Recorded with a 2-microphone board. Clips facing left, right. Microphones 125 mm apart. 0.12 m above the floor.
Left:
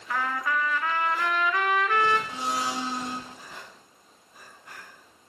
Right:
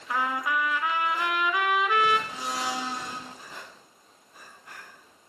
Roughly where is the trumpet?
Centre.